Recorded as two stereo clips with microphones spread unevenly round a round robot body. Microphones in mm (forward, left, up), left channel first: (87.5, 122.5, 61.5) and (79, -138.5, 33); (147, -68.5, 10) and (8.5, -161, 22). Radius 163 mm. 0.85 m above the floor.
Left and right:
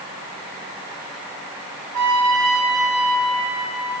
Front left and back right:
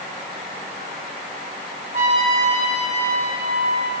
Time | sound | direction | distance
1.9 | a trumpet | 110° right | 3 m